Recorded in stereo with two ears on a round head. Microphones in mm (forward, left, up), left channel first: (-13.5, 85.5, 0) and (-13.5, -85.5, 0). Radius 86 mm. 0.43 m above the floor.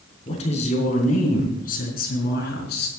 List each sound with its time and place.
0.3 s a woman speaking: 30° left (ahead or behind), 4.5 m; by 2.9 s 55° left (ahead or behind), 5 m